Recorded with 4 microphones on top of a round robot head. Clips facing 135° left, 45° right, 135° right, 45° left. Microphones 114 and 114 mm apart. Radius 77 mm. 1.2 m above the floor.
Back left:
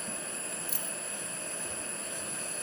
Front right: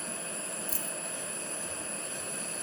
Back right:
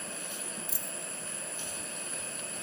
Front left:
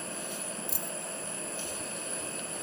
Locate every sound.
0.7 s a dropped coin: 10° left